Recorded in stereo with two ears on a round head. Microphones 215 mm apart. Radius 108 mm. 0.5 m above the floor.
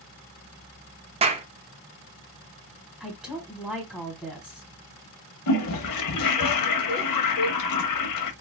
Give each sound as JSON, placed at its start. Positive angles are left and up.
{"t": 1.2, "sound": "a clap", "side_deg": -25, "distance_m": 0.6}
{"t": 3.0, "sound": "a woman speaking", "side_deg": 0, "distance_m": 1.2}
{"t": 5.5, "sound": "a toilet flushing", "side_deg": 90, "distance_m": 0.8}